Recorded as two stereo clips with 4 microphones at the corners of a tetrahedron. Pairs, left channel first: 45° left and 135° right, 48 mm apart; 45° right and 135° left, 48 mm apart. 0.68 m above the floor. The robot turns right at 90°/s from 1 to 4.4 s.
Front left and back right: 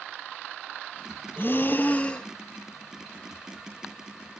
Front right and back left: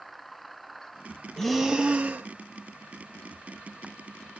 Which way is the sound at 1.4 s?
30° left.